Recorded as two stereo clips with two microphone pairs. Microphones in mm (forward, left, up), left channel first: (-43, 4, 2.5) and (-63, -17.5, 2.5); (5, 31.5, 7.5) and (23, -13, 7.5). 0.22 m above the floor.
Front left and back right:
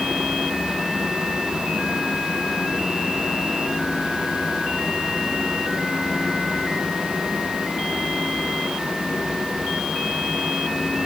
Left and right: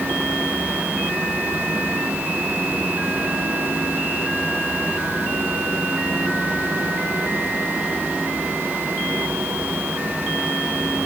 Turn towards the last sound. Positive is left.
No sound to turn to.